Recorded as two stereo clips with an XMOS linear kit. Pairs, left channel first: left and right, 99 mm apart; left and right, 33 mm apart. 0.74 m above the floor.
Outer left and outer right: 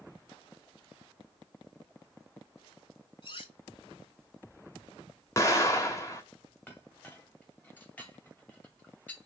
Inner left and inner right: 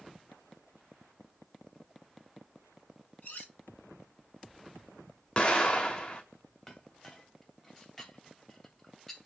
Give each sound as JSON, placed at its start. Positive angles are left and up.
{"t": 3.2, "sound": "cutlery clinking", "side_deg": 55, "distance_m": 3.0}
{"t": 5.4, "sound": "an explosion", "side_deg": 30, "distance_m": 1.7}
{"t": 6.7, "sound": "a clink", "side_deg": 15, "distance_m": 2.0}